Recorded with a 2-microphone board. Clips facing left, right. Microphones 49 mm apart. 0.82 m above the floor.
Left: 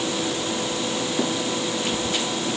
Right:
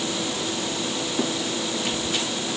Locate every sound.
Only background noise.